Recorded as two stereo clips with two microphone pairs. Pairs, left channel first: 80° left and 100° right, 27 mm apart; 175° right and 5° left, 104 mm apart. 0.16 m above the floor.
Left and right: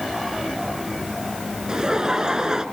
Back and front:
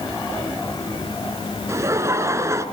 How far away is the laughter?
About 2.5 m.